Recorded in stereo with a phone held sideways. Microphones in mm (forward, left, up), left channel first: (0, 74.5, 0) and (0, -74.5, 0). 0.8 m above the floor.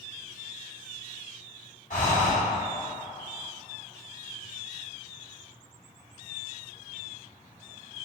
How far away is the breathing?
About 1.9 m.